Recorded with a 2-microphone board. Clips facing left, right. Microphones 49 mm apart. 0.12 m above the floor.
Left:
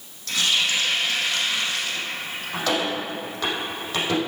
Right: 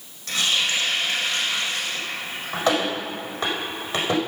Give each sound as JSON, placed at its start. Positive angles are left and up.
{"t": 0.3, "sound": "a running tap", "side_deg": -20, "distance_m": 4.0}